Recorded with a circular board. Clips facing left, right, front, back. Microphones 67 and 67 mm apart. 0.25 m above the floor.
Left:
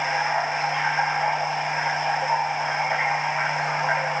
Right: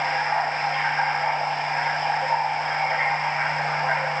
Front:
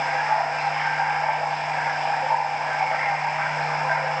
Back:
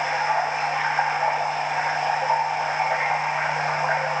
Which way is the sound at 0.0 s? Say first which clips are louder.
Even, even; 170° left.